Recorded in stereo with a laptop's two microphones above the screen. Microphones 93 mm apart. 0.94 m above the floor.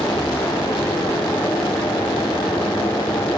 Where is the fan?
75° left (ahead or behind), 1.5 m.